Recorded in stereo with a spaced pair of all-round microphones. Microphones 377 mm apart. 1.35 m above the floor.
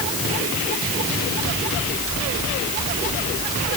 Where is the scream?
I don't hear a scream.